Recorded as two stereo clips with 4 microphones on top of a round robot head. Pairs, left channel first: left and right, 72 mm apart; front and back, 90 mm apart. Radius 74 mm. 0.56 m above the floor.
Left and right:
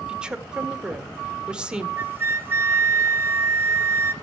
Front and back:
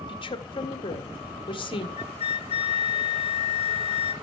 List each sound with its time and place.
0.1 s a woman speaking: 15° right, 1.9 m
2.0 s a flute: 30° right, 1.0 m